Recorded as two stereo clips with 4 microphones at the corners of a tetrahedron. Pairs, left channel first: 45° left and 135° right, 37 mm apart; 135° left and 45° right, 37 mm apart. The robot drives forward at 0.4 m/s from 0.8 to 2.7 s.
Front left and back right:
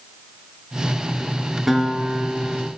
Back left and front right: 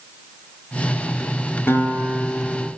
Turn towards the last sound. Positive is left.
turn(degrees=145)